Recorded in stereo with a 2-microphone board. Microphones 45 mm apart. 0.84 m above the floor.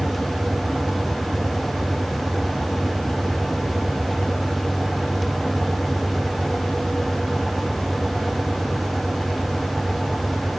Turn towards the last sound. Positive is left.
No sound to turn to.